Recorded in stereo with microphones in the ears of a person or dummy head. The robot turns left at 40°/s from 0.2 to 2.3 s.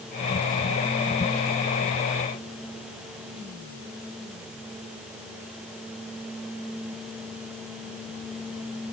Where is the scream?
No scream in this recording.